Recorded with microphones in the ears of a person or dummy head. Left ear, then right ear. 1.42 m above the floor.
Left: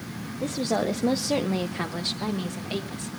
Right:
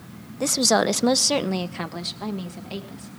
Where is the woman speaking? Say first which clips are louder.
Right 7 dB; 75° right (ahead or behind), 0.7 m; by 3.1 s 5° left (ahead or behind), 1.9 m.